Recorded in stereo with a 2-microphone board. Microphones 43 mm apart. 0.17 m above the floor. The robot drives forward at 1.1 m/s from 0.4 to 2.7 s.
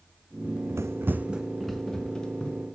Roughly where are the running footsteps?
Right.